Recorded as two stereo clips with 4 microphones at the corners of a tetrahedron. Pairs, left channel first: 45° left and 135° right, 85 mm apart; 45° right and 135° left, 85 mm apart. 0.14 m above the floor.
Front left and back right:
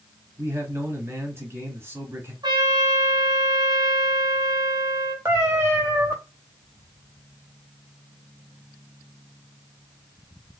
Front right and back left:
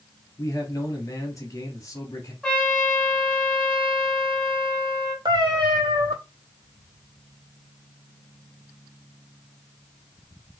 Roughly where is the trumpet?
Behind right.